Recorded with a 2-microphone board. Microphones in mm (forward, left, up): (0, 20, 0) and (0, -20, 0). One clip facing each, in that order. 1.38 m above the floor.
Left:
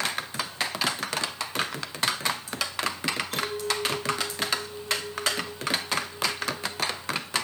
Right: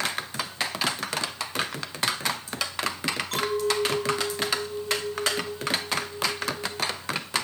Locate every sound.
3.3 s a clink: 80° right, 7 m